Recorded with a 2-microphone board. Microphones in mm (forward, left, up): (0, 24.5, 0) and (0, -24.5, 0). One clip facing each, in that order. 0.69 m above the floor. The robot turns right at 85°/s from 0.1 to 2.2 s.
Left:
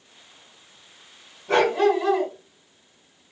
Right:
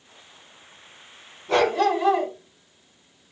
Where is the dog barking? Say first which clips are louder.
Left 1 dB; 135° left, 2 m; by 2.3 s 160° right, 2 m.